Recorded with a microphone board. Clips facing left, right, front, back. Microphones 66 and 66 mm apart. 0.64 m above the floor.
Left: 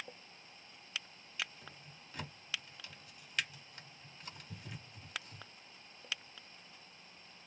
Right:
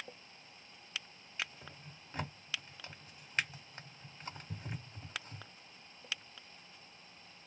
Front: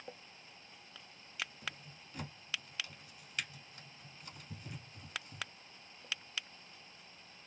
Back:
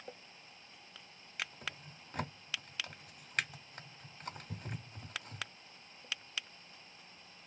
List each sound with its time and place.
1.4 s a drawer: 145° right, 0.8 m